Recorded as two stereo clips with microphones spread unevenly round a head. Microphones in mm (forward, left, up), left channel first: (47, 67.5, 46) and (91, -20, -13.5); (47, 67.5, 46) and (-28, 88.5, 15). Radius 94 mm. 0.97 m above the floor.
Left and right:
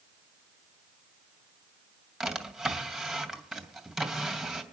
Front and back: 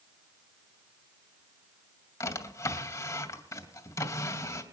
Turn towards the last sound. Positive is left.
turn(degrees=30)